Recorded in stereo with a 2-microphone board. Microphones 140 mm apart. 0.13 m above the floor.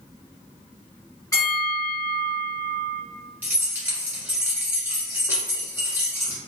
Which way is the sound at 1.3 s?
25° left (ahead or behind).